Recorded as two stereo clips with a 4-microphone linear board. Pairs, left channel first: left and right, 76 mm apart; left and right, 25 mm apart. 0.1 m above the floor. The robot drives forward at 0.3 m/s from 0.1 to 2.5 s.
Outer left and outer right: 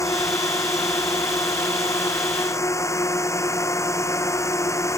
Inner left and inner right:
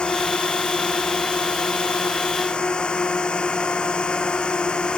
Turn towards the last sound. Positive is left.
turn(degrees=40)  # may be behind; listen again after turning